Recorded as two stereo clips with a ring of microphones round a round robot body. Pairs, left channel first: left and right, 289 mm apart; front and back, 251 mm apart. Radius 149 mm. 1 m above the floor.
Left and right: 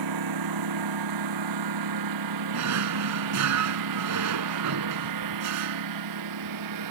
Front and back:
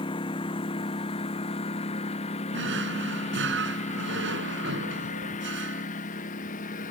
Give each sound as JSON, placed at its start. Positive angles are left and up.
{"t": 0.0, "sound": "a lawn mower", "azimuth_deg": -75}
{"t": 2.5, "sound": "a drawer", "azimuth_deg": -125}